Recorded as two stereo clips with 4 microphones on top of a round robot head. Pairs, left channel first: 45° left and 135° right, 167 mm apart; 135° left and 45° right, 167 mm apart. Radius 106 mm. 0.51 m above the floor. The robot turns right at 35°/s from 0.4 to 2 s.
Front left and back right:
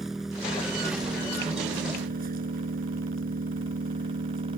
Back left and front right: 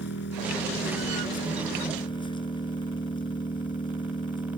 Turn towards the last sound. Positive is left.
turn(degrees=-165)